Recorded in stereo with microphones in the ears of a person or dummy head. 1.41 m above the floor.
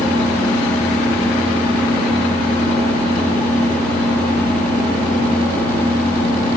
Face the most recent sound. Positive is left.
turn(degrees=10)  # may be behind; listen again after turning